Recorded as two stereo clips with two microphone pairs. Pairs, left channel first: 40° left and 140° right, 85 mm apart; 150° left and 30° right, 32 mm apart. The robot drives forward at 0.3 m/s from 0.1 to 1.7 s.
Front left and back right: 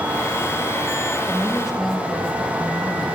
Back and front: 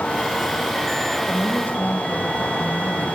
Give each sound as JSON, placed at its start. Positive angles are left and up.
{"t": 1.3, "sound": "a woman speaking", "azimuth_deg": 130, "distance_m": 4.0}